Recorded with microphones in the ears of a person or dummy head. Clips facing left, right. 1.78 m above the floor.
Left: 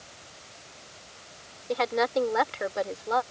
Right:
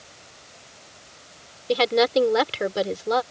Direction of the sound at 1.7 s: 45° right (ahead or behind).